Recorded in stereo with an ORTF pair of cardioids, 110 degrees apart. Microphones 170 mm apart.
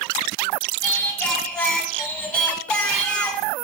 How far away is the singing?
About 1.0 m.